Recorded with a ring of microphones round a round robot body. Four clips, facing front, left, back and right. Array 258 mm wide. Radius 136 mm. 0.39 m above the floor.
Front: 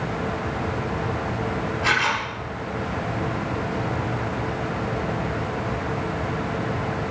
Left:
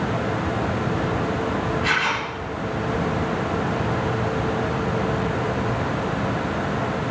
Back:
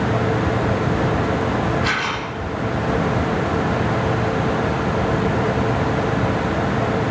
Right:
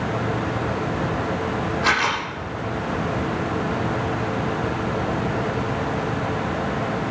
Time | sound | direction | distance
1.8 | a camera shutter | 85° right | 9.5 m